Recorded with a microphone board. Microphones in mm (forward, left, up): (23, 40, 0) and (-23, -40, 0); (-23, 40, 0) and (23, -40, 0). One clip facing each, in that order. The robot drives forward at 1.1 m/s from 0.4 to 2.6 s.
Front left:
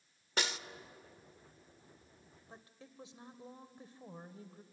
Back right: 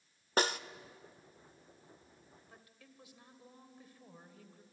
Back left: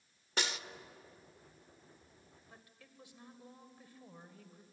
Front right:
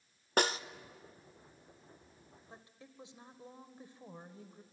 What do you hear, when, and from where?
0.4 s a snare drum: 85° right, 0.7 m; by 0.6 s 110° right, 0.7 m
2.5 s a woman speaking: straight ahead, 1.8 m